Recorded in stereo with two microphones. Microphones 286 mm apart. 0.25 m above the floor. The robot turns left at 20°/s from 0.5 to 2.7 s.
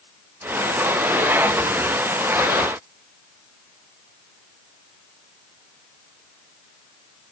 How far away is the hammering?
No hammering in this recording.